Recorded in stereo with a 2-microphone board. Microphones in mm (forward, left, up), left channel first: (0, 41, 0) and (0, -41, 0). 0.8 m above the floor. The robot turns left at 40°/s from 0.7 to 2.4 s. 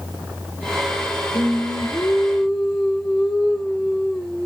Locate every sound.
1.3 s singing: 55° left, 2.5 m; by 4.5 s 10° left, 2.5 m